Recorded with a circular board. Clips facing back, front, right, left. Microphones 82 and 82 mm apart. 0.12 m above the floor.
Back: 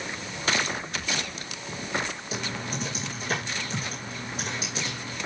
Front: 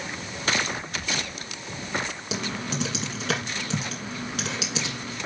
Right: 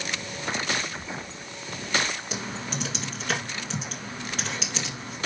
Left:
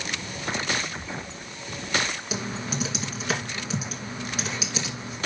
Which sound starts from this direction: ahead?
Typing on a keyboard, at 2.3 s.